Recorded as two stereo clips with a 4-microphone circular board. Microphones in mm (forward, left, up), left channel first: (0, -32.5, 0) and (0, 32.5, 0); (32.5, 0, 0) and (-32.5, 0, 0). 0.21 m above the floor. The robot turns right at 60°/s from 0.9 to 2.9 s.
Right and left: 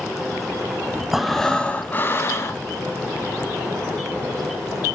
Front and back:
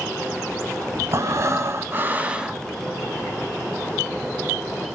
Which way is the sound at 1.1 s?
175° left.